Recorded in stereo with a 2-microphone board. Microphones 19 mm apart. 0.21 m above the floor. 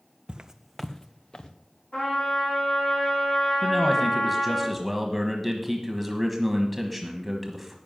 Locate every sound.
0.3 s footsteps: 50° right (ahead or behind), 0.6 m; by 1.5 s 45° left (ahead or behind), 1.4 m
1.9 s a trumpet: 75° left (ahead or behind), 8 m
3.6 s a man speaking: 5° right (ahead or behind), 1.2 m